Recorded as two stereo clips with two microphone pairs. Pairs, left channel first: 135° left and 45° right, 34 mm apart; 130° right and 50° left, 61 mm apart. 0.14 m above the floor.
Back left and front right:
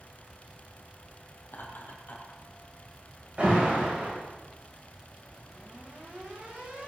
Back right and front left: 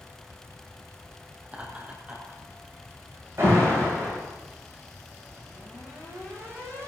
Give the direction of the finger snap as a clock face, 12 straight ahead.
I don't hear a finger snap.